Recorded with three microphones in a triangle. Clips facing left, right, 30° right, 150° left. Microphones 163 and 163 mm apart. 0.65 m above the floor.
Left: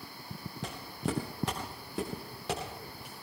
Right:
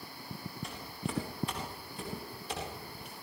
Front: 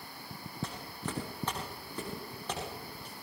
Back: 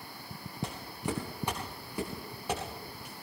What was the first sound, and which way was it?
Footsteps, 75° left.